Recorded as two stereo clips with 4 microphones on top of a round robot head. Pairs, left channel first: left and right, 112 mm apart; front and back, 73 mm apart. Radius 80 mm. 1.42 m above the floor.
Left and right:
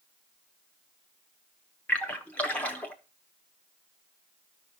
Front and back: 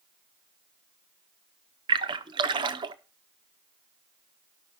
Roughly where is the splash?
Behind.